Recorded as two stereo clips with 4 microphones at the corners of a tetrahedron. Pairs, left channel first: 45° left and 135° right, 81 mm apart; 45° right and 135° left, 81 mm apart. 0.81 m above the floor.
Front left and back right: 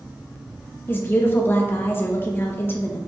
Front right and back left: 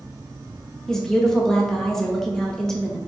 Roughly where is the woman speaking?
Ahead left.